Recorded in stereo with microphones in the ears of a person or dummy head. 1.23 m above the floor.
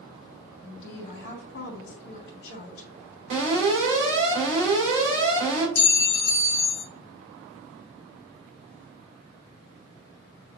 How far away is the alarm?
About 3 m.